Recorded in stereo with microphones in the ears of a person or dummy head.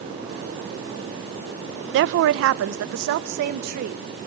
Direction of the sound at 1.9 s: 65° right (ahead or behind).